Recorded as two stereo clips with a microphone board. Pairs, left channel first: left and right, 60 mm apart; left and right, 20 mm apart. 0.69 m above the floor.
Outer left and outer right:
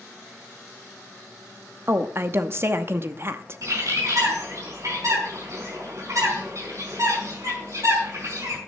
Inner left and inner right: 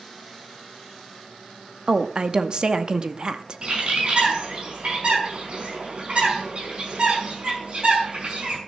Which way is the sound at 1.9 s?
45° right (ahead or behind).